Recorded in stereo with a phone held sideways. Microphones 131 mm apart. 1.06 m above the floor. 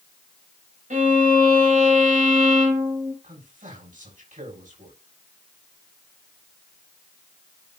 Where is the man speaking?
80° right, 6 m.